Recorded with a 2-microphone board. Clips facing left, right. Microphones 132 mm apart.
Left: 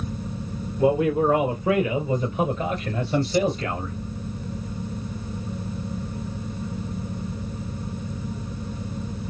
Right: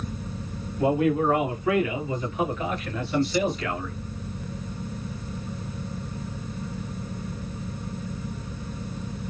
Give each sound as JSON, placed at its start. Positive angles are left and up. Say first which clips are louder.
{"t": 0.8, "sound": "a man speaking", "louder": "left 2 dB", "side_deg": 25, "distance_m": 2.5}